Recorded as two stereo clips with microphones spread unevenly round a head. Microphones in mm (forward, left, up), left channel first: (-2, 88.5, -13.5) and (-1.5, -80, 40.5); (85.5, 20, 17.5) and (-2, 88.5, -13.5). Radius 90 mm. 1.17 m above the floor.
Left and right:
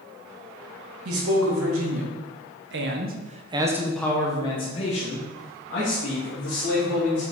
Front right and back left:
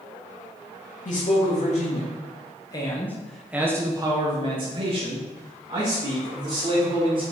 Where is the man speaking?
90° right, 2.5 m; by 7.2 s 115° left, 3.5 m.